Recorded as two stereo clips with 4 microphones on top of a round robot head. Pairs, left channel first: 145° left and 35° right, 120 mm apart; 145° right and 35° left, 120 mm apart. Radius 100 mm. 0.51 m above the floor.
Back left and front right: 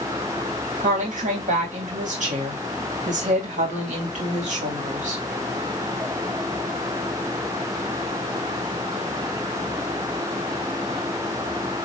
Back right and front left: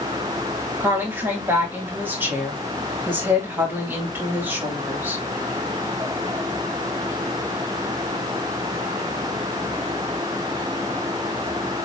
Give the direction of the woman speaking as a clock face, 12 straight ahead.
1 o'clock.